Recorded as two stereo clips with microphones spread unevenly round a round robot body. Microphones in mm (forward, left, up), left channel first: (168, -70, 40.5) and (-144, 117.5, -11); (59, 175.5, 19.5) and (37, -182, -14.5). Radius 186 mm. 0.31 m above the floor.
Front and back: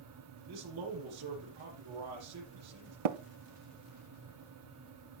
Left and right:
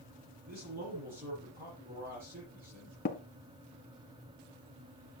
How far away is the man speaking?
About 7 m.